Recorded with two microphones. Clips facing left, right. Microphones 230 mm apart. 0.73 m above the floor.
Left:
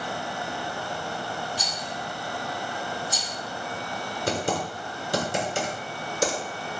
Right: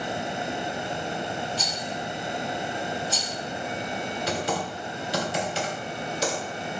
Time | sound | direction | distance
1.6 | a rattle | 15° left (ahead or behind) | 0.8 m
4.3 | typing on a keyboard | 55° left (ahead or behind) | 1.2 m